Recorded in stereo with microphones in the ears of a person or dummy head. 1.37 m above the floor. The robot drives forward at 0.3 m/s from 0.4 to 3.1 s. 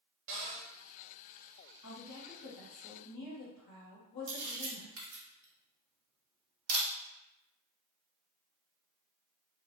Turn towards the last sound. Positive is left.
turn(degrees=-75)  # may be behind; listen again after turning